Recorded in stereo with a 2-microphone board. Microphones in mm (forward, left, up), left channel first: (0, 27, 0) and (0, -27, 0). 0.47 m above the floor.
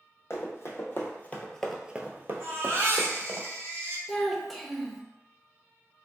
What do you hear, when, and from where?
0.3 s running footsteps: 55° left (ahead or behind), 1.1 m; by 3.4 s 70° right (ahead or behind), 1.2 m
2.4 s a baby crying: 50° right (ahead or behind), 0.8 m
4.1 s a child speaking: 5° left (ahead or behind), 0.6 m